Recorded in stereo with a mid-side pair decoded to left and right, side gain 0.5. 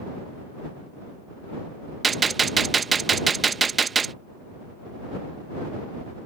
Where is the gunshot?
35° right.